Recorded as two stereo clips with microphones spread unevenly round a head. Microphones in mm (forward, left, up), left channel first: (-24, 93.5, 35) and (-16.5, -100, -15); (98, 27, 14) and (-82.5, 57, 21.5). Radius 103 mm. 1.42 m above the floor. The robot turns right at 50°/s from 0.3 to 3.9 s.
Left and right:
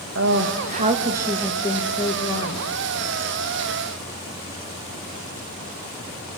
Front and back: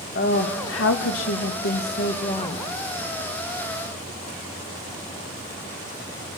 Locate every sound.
0.1 s a woman speaking: 55° right, 2 m; by 2.6 s 60° left, 2 m